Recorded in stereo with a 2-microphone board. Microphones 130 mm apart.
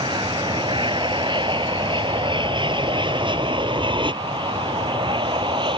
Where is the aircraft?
35° right (ahead or behind); by 5.8 s 40° right (ahead or behind).